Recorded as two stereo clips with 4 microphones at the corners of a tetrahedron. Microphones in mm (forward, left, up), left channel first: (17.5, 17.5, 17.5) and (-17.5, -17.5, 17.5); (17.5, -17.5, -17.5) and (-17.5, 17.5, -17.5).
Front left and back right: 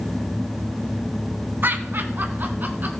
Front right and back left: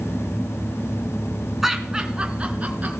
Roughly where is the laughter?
Behind right.